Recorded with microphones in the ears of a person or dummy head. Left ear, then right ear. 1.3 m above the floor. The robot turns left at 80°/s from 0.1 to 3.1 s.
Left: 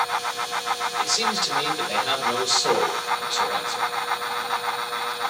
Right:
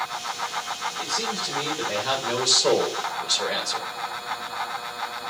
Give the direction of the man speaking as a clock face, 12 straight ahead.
9 o'clock.